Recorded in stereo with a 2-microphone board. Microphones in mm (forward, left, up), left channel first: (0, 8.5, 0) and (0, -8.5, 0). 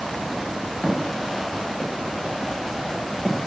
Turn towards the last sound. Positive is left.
turn(degrees=5)  # may be behind; listen again after turning